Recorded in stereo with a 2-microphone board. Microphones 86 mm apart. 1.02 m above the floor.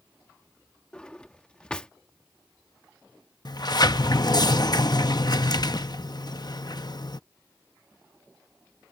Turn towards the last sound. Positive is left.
turn(degrees=55)  # may be behind; listen again after turning